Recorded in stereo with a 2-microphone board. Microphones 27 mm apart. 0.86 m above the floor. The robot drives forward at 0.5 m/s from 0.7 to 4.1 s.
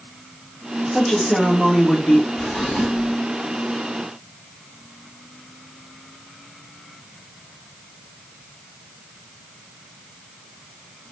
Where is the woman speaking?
30° left (ahead or behind), 2 m; by 2.3 s 40° left (ahead or behind), 1.6 m.